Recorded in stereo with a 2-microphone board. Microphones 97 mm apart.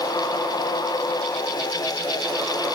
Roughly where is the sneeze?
I don't hear a sneeze.